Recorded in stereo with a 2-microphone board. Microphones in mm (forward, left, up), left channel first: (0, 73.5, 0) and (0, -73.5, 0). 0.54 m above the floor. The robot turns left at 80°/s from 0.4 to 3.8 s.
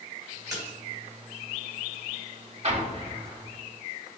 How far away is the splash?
About 2.5 m.